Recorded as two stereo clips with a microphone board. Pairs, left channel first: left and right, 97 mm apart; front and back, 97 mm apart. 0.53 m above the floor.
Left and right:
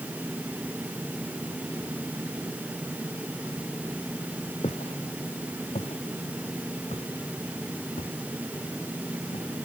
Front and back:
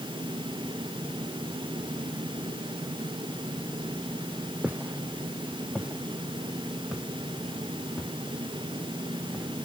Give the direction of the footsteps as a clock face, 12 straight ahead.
8 o'clock.